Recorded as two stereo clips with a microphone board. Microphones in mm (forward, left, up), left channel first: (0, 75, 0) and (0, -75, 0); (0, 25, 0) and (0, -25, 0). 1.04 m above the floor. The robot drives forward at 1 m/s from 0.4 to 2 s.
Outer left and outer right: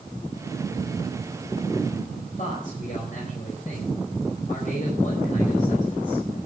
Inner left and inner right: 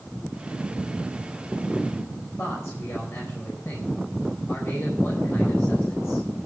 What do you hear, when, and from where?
2.4 s a man speaking: 55° left (ahead or behind), 4.5 m